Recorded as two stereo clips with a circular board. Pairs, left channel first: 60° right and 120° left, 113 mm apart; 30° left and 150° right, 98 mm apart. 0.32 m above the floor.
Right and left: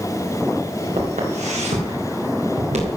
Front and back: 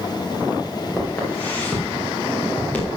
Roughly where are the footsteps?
Left.